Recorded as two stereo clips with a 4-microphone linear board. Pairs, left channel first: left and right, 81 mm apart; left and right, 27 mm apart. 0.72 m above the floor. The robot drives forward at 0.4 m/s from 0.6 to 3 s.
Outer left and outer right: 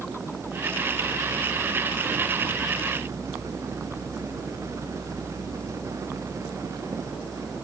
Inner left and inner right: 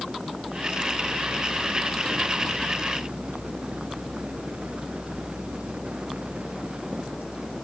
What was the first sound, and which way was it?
Only background noise.